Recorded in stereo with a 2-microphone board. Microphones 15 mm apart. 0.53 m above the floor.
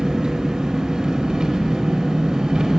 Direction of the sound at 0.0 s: 70° right (ahead or behind).